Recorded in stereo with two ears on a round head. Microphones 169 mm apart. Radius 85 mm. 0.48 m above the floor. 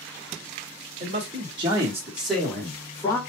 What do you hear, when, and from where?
1.0 s a man speaking: 35° right (ahead or behind), 1.4 m; by 3.2 s 20° left (ahead or behind), 1.7 m